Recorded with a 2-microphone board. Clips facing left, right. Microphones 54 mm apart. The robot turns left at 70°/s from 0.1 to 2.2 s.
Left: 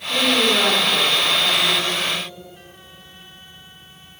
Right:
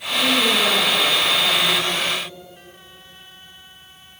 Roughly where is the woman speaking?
Behind left.